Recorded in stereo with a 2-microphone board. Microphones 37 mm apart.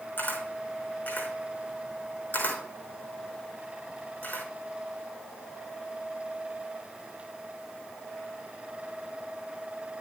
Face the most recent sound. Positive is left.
turn(degrees=50)  # may be behind; listen again after turning